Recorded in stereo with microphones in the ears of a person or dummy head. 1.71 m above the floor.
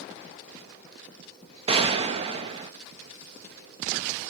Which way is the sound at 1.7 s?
35° right (ahead or behind).